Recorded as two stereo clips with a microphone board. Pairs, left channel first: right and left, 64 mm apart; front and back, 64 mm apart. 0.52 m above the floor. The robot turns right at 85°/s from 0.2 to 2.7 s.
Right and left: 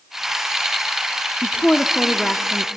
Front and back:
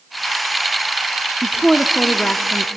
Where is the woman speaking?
105° right, 0.7 m; by 2.7 s straight ahead, 0.7 m.